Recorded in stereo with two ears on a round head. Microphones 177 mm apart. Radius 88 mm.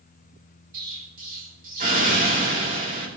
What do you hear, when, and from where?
0.7 s an explosion: 45° right (ahead or behind), 3 m